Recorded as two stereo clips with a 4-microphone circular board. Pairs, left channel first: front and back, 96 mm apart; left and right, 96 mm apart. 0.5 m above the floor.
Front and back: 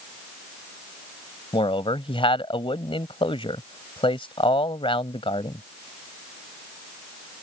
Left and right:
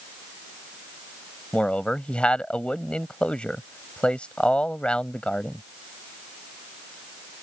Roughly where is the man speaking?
Ahead.